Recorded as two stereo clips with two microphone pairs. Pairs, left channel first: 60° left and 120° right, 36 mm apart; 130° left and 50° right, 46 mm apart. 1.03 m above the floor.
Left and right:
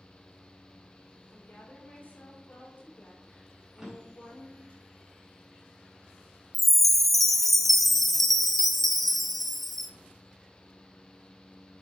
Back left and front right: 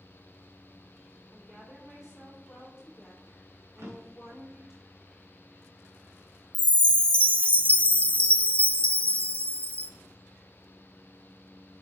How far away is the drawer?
About 3.5 m.